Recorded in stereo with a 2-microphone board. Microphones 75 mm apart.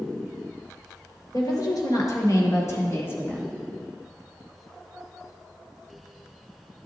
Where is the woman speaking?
60° left (ahead or behind), 2.5 m; by 3.5 s 20° left (ahead or behind), 1.1 m.